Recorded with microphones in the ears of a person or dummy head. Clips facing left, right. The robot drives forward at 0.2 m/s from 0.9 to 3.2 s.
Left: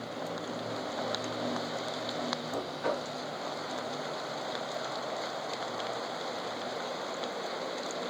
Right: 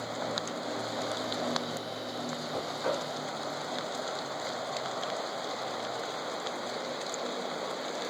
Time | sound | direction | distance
2.5 | knocking | 30° left (ahead or behind) | 1.1 m